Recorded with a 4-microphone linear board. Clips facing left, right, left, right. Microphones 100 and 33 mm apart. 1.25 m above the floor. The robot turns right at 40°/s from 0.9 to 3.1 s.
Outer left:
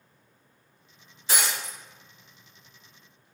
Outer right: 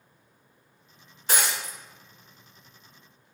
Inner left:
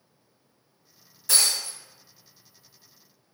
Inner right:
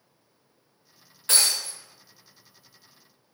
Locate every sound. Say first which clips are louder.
1.3 s breaking glass: outer right 1 dB, inner right 1 dB; 50° right (ahead or behind), 1.4 m; by 1.8 s 55° right (ahead or behind), 1.4 m